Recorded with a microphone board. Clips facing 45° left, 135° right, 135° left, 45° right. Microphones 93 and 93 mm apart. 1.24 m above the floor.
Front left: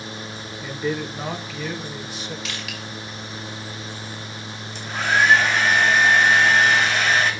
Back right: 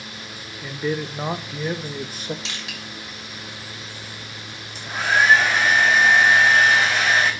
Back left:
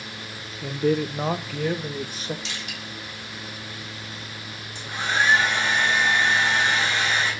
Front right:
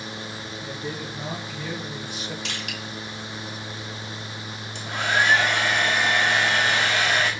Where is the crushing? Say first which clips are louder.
Front left 2 dB, front right 2 dB; 75° right, 4.5 m.